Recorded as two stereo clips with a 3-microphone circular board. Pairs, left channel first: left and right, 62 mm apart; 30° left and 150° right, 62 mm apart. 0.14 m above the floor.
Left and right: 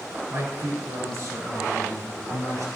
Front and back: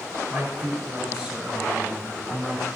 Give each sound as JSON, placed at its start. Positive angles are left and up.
{"t": 0.3, "sound": "a man speaking", "azimuth_deg": -100, "distance_m": 1.4}